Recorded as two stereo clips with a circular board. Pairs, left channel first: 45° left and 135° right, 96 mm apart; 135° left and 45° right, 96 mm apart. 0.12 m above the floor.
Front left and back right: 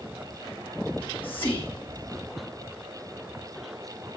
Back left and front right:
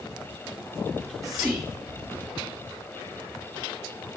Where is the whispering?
10° right, 2 m.